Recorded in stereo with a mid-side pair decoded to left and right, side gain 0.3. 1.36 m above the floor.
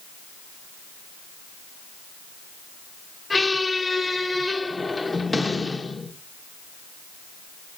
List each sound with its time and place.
3.3 s a squeak: 35° left, 1.1 m